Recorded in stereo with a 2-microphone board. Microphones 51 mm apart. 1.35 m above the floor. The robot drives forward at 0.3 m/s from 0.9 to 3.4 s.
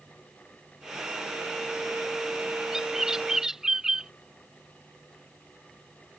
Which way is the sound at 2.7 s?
10° right (ahead or behind).